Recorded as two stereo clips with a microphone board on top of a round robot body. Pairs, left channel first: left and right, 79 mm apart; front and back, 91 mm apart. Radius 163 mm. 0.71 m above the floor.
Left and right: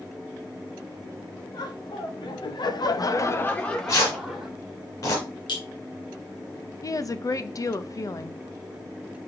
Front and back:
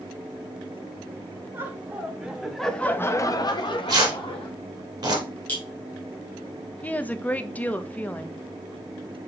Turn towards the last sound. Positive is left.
turn(degrees=65)